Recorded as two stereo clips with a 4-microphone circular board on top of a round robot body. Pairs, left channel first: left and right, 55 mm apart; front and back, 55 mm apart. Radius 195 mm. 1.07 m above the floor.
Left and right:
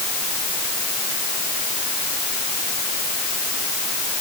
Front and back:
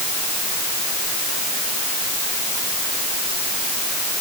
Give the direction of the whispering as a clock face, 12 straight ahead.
I don't hear whispering.